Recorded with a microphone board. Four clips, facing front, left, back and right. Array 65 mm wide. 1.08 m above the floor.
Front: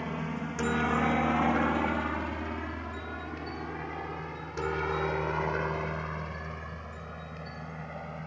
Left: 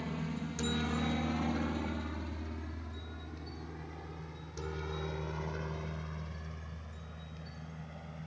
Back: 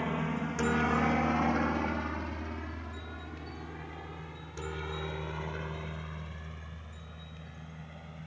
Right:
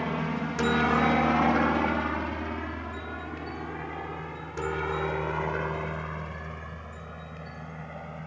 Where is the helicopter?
100° right; by 8.3 s 40° right.